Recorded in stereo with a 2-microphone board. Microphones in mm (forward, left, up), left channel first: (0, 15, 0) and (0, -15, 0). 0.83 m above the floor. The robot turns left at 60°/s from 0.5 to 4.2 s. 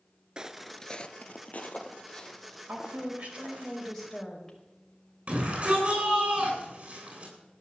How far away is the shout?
About 9 m.